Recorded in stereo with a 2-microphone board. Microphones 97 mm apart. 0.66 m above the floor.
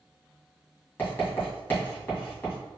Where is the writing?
25° left (ahead or behind), 1.9 m.